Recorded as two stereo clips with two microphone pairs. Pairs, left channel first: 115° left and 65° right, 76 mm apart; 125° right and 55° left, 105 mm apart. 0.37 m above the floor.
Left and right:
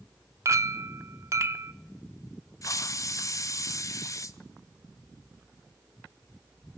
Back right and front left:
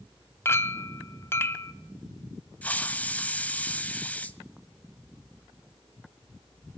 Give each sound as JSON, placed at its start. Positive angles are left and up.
{"t": 0.5, "sound": "a clink", "azimuth_deg": -75, "distance_m": 0.5}
{"t": 2.6, "sound": "a hiss", "azimuth_deg": 160, "distance_m": 0.6}